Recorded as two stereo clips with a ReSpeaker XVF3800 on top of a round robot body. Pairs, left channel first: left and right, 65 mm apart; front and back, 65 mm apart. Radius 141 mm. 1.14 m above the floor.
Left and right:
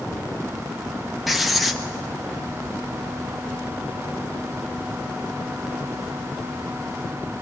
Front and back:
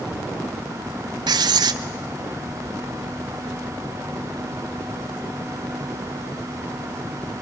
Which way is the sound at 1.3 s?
Straight behind.